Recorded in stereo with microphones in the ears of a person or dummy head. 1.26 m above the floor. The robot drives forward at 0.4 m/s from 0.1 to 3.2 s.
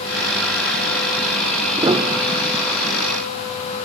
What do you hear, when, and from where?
1.8 s a piano: 20° right (ahead or behind), 0.8 m; by 2.7 s 35° right (ahead or behind), 0.5 m